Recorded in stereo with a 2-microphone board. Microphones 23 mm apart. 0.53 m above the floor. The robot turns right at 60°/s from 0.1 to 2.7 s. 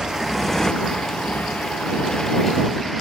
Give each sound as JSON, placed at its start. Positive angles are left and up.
{"t": 0.0, "sound": "a motorcycle", "side_deg": -30}